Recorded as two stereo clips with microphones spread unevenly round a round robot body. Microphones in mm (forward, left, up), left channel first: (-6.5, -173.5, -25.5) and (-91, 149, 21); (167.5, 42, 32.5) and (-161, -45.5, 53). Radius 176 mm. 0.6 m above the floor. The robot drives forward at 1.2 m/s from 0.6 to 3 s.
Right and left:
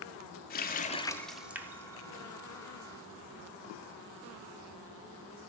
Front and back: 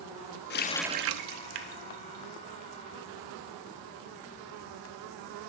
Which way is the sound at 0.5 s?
30° right.